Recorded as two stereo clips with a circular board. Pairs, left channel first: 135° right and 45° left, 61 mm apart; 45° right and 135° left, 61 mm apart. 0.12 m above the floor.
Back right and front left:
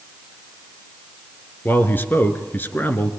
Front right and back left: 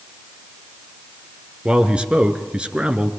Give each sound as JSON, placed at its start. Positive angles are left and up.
{"t": 1.6, "sound": "a man speaking", "azimuth_deg": -165, "distance_m": 2.0}